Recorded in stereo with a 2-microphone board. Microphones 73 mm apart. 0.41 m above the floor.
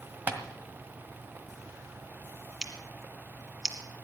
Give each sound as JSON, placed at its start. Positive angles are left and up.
{"t": 0.3, "sound": "tapping", "side_deg": -25, "distance_m": 1.5}
{"t": 2.6, "sound": "scissors", "side_deg": -5, "distance_m": 1.8}